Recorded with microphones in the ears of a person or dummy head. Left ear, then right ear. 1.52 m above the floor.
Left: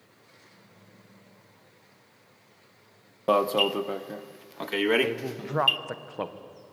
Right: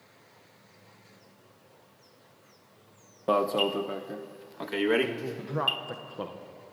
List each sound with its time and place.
3.3 s an alarm: 15° left (ahead or behind), 0.7 m
5.0 s a man speaking: 30° left (ahead or behind), 1.5 m